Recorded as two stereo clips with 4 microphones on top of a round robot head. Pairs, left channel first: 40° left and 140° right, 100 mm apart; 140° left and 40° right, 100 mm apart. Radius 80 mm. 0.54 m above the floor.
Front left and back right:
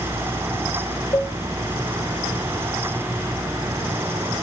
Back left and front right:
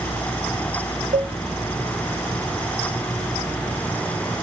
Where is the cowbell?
20° right, 1.5 m.